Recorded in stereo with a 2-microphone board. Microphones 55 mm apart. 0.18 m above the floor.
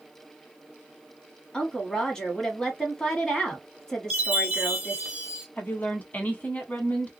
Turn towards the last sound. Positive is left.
turn(degrees=30)  # may be behind; listen again after turning